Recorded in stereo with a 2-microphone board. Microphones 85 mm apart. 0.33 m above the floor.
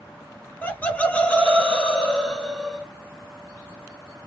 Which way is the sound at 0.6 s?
20° left (ahead or behind).